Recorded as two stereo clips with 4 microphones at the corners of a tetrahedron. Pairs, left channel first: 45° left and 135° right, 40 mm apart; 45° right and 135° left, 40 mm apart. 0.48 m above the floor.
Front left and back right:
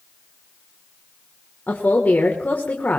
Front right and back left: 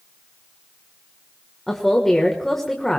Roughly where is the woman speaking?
Ahead left.